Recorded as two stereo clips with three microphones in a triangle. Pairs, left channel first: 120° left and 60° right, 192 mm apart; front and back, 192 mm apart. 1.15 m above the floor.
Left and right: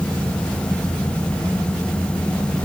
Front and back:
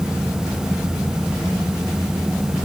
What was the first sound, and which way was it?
Only background noise.